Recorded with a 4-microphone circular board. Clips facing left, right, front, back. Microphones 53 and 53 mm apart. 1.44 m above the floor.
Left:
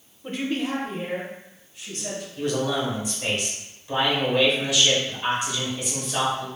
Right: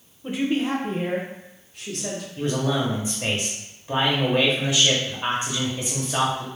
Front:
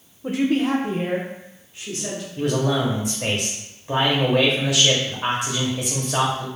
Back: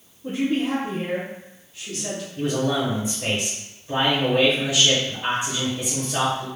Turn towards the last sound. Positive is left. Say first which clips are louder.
# right 1 dB, front 2 dB
turn(degrees=-25)